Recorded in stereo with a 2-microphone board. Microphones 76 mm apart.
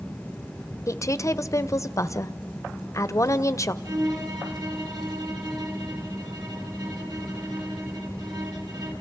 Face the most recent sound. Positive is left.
turn(degrees=-55)  # may be behind; listen again after turning